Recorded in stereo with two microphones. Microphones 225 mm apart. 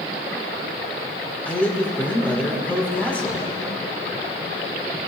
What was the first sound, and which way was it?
A man speaking, 5° left (ahead or behind).